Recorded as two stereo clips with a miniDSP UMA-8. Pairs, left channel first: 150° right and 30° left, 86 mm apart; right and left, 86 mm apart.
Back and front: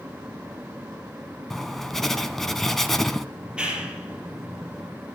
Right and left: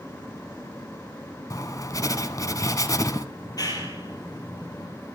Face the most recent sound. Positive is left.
turn(degrees=-50)